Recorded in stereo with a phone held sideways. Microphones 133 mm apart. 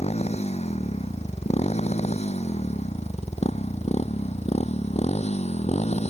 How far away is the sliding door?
No sliding door in this recording.